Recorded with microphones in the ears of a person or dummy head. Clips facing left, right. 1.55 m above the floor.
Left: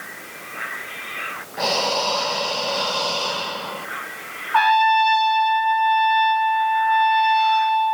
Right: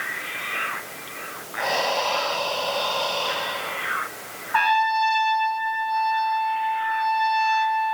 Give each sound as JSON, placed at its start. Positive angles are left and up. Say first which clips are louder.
{"t": 1.6, "sound": "breathing", "louder": "left 2 dB", "side_deg": 45, "distance_m": 1.2}
{"t": 4.5, "sound": "a trumpet", "louder": "left 5 dB", "side_deg": -15, "distance_m": 4.0}